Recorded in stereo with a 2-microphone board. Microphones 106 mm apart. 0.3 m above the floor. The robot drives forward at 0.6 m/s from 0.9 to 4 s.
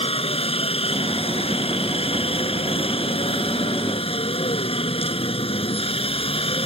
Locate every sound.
0.0 s a helicopter: 65° left (ahead or behind); by 6.7 s 60° left (ahead or behind)